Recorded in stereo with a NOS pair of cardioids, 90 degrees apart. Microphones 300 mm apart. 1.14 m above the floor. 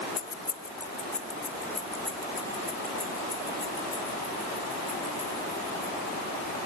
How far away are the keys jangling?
About 1.0 m.